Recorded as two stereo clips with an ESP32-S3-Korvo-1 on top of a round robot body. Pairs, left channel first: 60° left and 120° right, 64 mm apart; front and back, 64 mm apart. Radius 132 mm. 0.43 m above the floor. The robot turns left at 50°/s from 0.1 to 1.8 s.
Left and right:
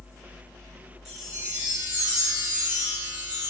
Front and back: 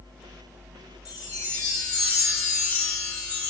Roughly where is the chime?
Ahead right.